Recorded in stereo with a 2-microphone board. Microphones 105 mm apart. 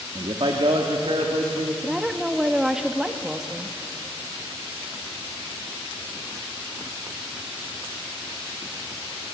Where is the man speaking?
50° right (ahead or behind), 1.8 m; by 1.7 s 65° right (ahead or behind), 3 m.